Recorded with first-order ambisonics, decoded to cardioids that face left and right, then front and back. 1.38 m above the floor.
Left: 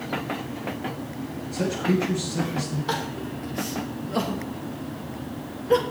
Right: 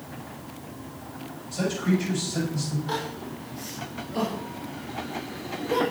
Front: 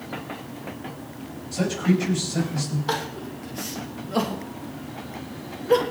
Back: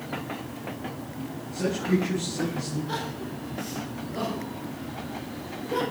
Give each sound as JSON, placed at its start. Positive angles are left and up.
{"t": 1.5, "sound": "a man speaking", "azimuth_deg": -25, "distance_m": 9.0}
{"t": 2.9, "sound": "crying", "azimuth_deg": 30, "distance_m": 3.0}